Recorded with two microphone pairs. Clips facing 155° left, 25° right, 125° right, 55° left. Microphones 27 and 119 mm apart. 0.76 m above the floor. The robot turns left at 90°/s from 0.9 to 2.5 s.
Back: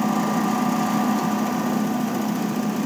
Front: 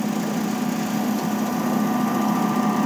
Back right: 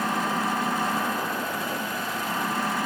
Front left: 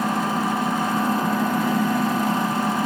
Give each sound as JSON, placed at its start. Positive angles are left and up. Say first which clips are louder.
{"t": 0.0, "sound": "an engine running", "louder": "back 3 dB, front left 4 dB", "azimuth_deg": 130}